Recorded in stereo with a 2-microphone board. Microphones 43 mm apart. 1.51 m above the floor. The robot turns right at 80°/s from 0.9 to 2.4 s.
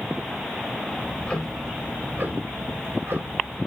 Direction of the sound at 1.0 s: 140° left.